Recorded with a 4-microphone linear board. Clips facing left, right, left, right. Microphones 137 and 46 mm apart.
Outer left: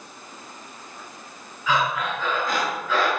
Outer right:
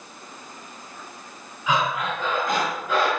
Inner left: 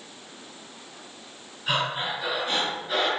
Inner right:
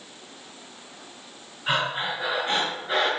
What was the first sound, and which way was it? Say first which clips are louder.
Breathing: even, inner right 1 dB; 20° right (ahead or behind).